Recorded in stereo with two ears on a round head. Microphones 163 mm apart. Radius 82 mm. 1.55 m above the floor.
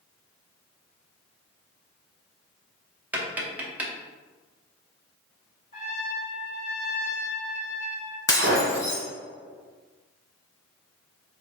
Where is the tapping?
10° right (ahead or behind), 0.7 m.